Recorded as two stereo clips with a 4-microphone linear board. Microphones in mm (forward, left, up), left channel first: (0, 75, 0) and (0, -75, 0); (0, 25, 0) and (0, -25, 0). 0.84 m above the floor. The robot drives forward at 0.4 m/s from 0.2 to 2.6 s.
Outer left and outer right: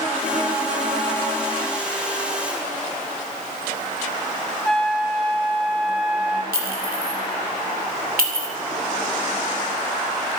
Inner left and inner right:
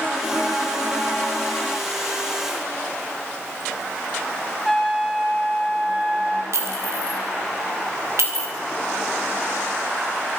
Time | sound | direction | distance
4.7 | a trumpet | 5° left (ahead or behind) | 1.5 m
6.5 | a clink | 75° right (ahead or behind) | 2.5 m